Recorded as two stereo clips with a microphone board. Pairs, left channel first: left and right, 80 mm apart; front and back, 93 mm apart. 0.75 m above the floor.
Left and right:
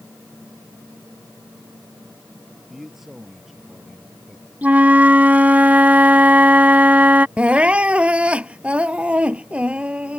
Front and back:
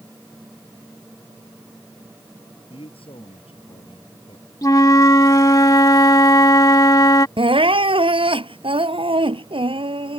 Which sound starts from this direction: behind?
Crying, at 7.4 s.